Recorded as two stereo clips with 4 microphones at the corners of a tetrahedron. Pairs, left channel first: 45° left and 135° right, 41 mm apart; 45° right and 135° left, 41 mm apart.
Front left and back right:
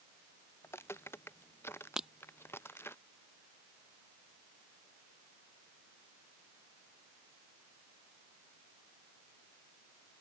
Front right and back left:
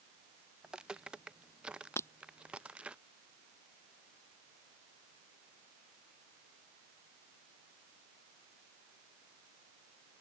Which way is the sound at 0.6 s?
60° left.